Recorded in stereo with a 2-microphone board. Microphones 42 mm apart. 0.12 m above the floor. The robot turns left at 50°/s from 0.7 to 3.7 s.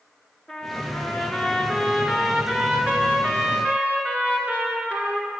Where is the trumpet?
55° left, 1.2 m; by 5.3 s 95° right, 1.2 m.